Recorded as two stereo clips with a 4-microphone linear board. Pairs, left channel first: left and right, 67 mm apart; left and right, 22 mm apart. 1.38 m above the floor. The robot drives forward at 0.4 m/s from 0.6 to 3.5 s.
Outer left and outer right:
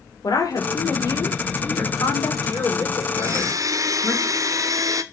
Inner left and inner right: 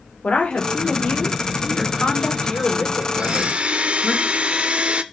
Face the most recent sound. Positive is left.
turn(degrees=-60)  # may be behind; listen again after turning